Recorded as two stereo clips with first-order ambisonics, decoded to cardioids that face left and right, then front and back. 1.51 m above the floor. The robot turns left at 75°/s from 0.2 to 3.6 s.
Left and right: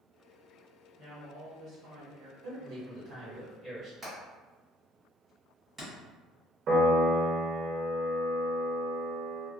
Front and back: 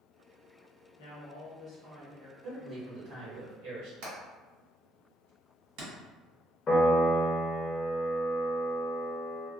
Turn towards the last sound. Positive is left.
turn(degrees=-55)